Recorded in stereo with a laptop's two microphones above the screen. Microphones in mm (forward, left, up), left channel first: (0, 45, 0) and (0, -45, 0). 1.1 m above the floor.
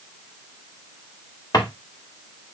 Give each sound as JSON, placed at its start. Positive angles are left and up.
{"t": 1.5, "sound": "a drawer", "side_deg": 45, "distance_m": 1.2}